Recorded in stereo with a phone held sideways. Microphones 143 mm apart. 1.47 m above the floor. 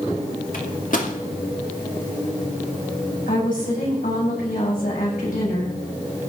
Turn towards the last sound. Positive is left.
turn(degrees=80)